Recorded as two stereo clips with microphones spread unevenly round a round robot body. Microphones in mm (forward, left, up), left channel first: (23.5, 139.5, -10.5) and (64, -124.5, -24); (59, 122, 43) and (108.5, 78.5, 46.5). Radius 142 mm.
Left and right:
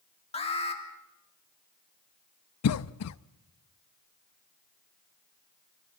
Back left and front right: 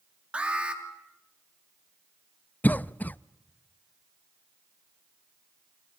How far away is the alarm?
About 3 m.